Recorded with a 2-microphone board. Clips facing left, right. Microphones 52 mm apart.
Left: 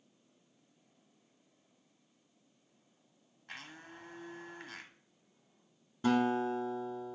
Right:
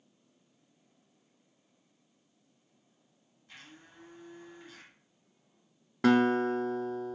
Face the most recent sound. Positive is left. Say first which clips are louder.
# right 5 dB
turn(degrees=-80)